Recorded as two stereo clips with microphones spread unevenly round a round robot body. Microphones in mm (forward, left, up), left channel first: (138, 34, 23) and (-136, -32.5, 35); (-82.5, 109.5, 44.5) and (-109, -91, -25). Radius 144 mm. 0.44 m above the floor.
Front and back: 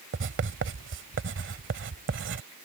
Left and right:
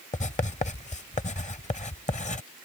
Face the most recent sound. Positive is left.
turn(degrees=145)